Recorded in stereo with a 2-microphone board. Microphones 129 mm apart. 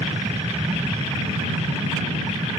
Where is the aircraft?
55° right (ahead or behind); by 2.6 s 60° right (ahead or behind).